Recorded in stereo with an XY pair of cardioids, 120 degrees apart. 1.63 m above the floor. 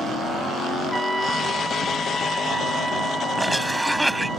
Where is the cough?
5° right.